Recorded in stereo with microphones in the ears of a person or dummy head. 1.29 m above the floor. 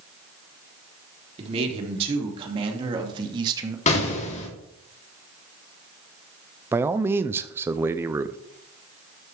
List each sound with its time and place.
1.4 s a man speaking: 35° right (ahead or behind), 3 m; by 3.8 s 25° right (ahead or behind), 1.7 m
3.9 s an explosion: 35° left (ahead or behind), 3 m
6.7 s a man speaking: 10° right (ahead or behind), 0.5 m